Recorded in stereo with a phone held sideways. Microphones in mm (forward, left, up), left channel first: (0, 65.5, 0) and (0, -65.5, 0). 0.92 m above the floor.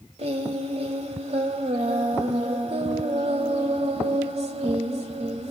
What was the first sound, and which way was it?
Singing, 55° right (ahead or behind).